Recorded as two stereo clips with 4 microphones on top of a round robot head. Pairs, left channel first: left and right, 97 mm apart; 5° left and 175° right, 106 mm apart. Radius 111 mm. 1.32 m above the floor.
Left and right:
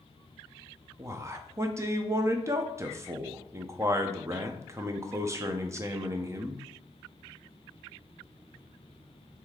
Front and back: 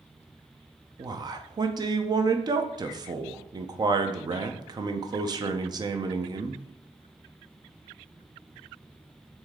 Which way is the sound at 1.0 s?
140° right.